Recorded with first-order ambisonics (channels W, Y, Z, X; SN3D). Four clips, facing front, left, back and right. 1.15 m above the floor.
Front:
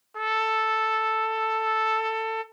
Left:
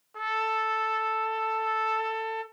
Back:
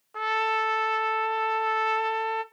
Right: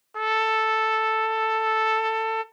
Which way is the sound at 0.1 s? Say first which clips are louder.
Right 5 dB, front 1 dB; 105° right.